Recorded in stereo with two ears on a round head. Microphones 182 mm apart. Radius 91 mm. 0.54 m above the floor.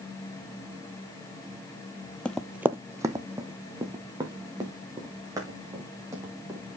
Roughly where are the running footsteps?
Centre.